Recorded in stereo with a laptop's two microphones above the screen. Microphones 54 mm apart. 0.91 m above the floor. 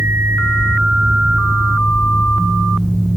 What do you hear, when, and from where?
0.0 s a fan: 5° right (ahead or behind), 3 m